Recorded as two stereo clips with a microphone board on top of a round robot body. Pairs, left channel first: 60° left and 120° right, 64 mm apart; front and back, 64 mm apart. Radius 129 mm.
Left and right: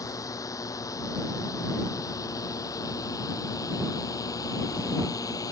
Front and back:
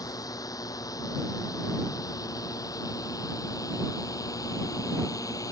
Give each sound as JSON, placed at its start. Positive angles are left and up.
{"t": 0.0, "sound": "a drone", "azimuth_deg": 30}